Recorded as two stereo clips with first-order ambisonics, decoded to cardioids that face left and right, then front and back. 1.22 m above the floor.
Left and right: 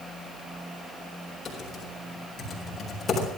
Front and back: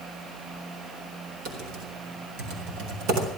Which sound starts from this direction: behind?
Typing on a keyboard, at 1.4 s.